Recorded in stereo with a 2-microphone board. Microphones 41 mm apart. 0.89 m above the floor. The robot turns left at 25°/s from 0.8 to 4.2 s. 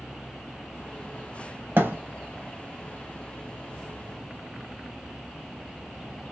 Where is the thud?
65° right (ahead or behind), 1.2 m.